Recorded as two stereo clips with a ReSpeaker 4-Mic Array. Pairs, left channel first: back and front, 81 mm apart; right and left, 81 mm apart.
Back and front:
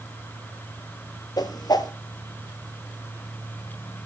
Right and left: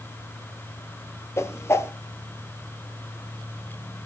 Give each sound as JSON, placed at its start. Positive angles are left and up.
{"t": 1.4, "sound": "a whoosh", "azimuth_deg": -145, "distance_m": 0.9}